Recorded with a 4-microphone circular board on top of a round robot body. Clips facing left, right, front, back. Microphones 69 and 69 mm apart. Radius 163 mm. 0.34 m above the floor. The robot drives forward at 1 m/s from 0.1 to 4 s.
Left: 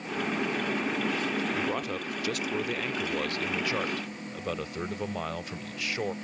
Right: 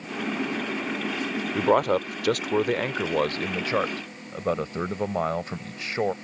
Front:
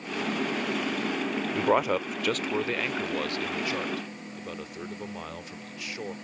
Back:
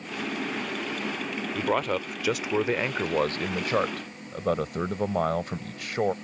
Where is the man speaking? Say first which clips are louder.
Right 10 dB, front 2 dB; 65° right; by 6.1 s 145° right.